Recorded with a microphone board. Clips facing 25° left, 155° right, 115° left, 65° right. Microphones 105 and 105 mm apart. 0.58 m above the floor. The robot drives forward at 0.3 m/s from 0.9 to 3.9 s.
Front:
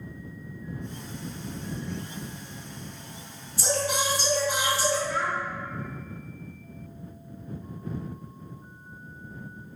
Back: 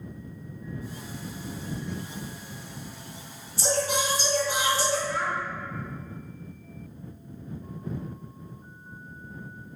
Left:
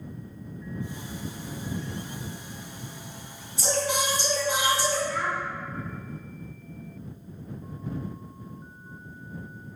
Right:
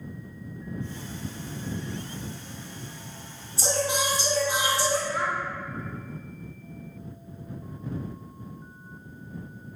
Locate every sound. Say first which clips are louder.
3.6 s singing: back 1 dB, even; 115° right, 1.5 m; by 5.0 s 120° right, 1.6 m
5.1 s a child speaking: front 1 dB, right 1 dB; 105° right, 1.4 m